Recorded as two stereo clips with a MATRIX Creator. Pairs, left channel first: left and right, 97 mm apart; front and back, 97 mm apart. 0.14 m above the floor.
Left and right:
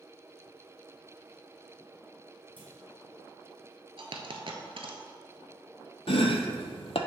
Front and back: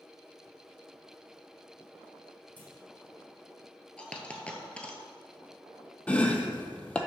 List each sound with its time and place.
2.6 s a clunk: 70° right, 2 m
4.0 s a dropped coin: 75° right, 0.8 m
6.1 s chopping: 80° left, 0.6 m